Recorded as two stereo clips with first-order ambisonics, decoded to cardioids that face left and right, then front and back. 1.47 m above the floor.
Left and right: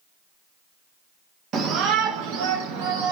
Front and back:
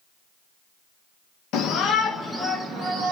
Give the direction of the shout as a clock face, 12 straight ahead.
1 o'clock.